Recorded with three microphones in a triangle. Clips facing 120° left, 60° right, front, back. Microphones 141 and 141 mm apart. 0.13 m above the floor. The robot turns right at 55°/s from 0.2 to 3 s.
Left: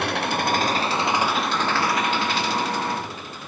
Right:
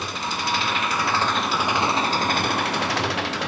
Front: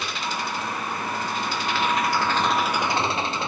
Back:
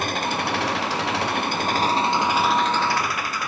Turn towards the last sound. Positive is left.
turn(degrees=-65)